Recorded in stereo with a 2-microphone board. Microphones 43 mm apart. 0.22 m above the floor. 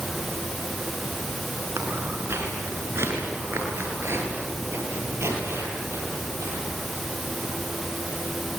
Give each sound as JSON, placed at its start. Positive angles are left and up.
{"t": 1.8, "sound": "footsteps", "side_deg": -90, "distance_m": 8.5}